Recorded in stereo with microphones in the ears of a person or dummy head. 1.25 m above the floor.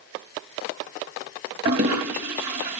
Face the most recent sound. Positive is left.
turn(degrees=-40)  # may be behind; listen again after turning